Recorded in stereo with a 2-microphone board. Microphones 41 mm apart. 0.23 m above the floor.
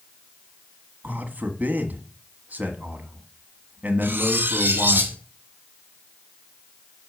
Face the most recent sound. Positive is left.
turn(degrees=-65)  # may be behind; listen again after turning